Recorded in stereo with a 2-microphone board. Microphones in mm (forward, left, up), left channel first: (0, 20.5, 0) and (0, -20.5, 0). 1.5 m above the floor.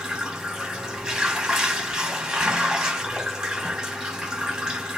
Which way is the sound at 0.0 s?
10° right (ahead or behind).